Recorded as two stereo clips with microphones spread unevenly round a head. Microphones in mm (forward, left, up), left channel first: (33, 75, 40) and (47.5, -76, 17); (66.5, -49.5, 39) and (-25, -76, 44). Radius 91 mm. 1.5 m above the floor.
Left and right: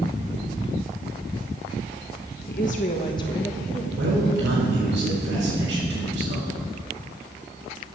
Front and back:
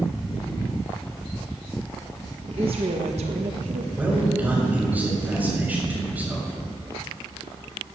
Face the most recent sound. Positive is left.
turn(degrees=-90)